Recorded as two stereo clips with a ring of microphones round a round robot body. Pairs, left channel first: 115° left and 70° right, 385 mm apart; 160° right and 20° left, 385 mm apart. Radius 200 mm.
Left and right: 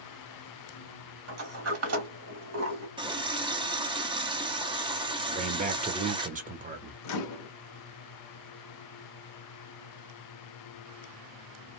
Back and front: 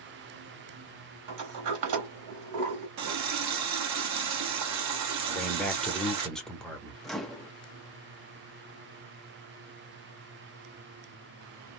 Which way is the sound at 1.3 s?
15° right.